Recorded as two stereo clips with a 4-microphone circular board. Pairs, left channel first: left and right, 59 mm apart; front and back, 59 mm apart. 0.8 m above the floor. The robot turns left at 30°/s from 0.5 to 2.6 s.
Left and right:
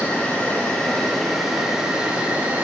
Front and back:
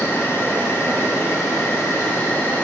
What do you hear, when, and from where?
0.0 s an insect: 25° left, 1.4 m; by 2.6 s 40° right, 1.4 m